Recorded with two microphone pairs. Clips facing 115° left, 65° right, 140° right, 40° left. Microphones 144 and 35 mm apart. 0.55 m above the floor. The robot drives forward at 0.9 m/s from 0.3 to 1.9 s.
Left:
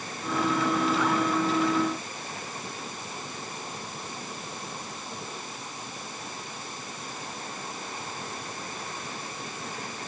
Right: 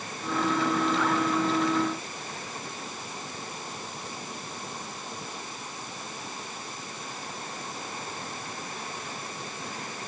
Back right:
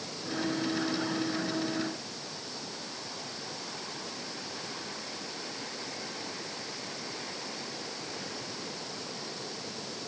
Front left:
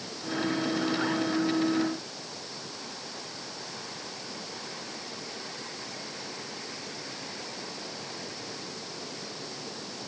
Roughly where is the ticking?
No ticking in this recording.